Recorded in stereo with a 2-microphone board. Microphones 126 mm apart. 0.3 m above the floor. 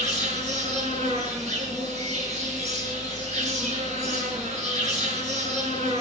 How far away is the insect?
About 5 m.